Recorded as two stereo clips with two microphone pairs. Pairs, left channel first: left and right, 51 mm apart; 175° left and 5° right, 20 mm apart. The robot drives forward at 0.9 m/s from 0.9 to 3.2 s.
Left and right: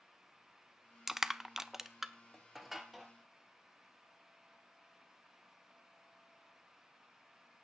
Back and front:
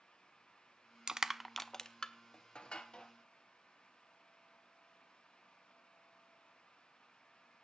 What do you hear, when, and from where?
1.1 s crushing: 20° right, 0.6 m; by 3.1 s 175° right, 1.6 m